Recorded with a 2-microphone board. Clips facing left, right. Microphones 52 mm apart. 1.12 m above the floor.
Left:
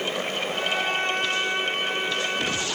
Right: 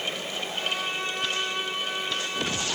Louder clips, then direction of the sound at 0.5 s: Left 4 dB; 45° left (ahead or behind).